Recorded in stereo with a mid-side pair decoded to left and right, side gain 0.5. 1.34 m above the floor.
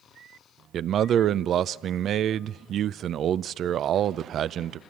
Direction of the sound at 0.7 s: 55° right.